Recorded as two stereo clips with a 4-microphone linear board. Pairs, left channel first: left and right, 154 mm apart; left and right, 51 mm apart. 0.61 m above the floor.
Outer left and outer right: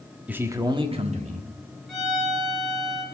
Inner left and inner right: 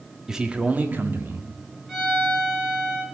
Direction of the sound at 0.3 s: 10° right (ahead or behind).